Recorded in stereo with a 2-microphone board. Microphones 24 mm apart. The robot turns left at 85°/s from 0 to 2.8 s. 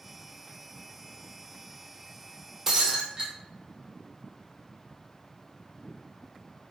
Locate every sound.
2.7 s breaking glass: 15° right (ahead or behind), 1.0 m; by 3.3 s 25° right (ahead or behind), 1.0 m